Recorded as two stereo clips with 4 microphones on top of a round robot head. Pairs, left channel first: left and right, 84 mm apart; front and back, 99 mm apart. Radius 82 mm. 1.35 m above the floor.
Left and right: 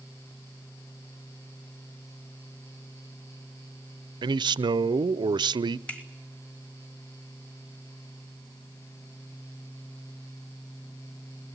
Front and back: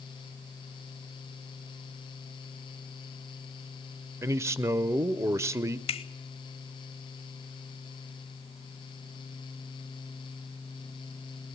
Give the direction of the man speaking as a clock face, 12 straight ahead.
4 o'clock.